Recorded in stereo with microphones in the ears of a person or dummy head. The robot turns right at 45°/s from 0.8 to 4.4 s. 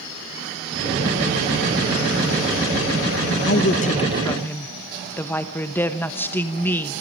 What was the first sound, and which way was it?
A woman speaking, 120° left.